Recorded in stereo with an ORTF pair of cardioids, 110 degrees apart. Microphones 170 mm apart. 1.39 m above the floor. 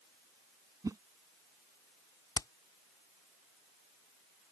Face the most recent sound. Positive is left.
turn(degrees=20)